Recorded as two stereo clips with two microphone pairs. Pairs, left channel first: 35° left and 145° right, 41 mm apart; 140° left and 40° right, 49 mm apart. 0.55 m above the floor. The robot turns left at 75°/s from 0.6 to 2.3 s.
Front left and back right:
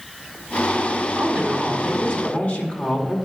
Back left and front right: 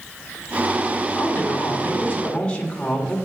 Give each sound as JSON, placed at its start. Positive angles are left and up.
{"t": 1.2, "sound": "a woman speaking", "azimuth_deg": 165, "distance_m": 1.8}